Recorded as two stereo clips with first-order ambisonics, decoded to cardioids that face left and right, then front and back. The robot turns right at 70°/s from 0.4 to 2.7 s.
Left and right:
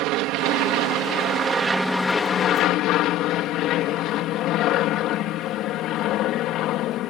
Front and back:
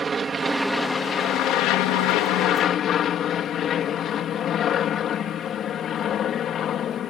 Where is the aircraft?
110° right; by 7.1 s 50° left.